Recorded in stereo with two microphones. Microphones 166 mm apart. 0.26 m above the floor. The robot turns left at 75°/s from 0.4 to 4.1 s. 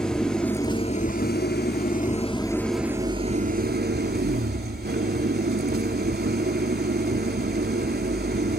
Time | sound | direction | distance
0.0 | an engine running | 175° left | 1.2 m